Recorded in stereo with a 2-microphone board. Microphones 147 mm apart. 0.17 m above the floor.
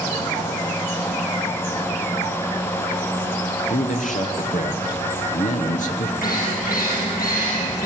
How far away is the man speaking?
About 2.5 m.